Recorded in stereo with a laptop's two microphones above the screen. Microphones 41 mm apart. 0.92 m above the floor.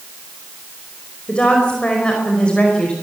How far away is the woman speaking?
About 5 m.